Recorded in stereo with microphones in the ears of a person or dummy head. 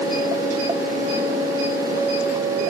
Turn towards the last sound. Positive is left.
No sound to turn to.